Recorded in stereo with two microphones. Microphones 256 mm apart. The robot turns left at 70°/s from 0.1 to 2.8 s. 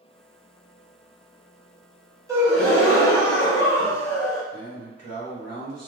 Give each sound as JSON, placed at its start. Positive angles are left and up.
{"t": 2.3, "sound": "a gasp", "azimuth_deg": -165, "distance_m": 0.9}
{"t": 4.5, "sound": "a man speaking", "side_deg": -75, "distance_m": 1.2}